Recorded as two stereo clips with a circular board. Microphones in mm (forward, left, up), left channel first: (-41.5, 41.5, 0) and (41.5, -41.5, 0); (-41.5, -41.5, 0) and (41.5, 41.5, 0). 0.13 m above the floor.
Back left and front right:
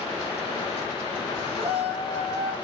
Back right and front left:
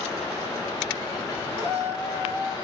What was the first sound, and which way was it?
A shout, 30° right.